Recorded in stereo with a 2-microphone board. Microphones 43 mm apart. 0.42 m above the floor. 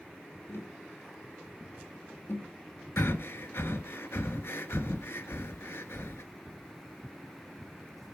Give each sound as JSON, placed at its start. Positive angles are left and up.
{"t": 0.5, "sound": "tapping", "side_deg": 65, "distance_m": 1.7}
{"t": 3.0, "sound": "breathing", "side_deg": 65, "distance_m": 1.0}